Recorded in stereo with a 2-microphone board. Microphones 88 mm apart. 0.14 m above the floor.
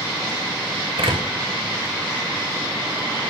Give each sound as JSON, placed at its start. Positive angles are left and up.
{"t": 1.0, "sound": "a door slam", "side_deg": -85, "distance_m": 8.5}